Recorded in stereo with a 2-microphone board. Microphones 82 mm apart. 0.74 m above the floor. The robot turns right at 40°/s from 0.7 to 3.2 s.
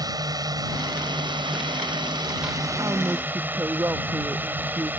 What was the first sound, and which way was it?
A drone, 125° right.